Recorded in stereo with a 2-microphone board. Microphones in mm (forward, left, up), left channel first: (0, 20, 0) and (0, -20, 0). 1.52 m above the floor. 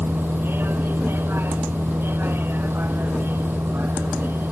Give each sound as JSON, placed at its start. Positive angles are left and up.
{"t": 0.0, "sound": "a vehicle", "side_deg": -65}